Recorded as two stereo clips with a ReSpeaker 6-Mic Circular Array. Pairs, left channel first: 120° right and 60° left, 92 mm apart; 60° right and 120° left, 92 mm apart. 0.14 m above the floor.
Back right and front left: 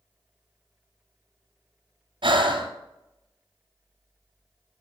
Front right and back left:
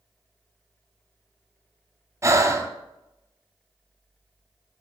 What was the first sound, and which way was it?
Breathing, 65° left.